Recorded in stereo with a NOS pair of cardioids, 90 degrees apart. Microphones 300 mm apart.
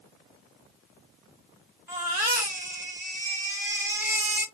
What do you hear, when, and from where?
1.9 s a baby crying: 10° right, 1.9 m